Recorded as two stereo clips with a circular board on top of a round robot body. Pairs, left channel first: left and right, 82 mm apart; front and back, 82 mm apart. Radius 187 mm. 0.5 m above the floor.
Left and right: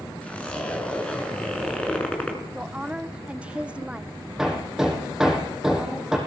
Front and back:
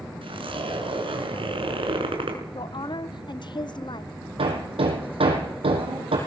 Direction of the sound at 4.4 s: 175° right.